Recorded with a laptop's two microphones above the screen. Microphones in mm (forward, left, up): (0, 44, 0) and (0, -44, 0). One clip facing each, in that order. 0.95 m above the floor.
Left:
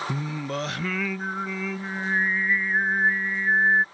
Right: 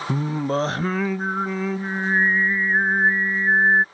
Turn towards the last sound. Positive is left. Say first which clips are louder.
# right 7 dB
turn(degrees=-35)  # may be behind; listen again after turning